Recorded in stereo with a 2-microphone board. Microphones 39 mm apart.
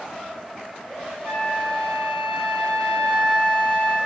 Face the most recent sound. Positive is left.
turn(degrees=50)  # may be behind; listen again after turning